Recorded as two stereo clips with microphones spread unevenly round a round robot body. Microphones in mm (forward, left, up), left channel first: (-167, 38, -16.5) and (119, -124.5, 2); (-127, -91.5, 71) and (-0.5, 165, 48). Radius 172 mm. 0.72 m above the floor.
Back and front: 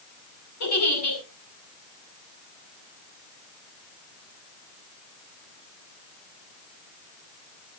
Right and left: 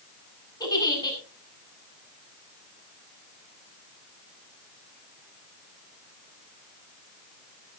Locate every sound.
0.6 s a giggle: 165° left, 8 m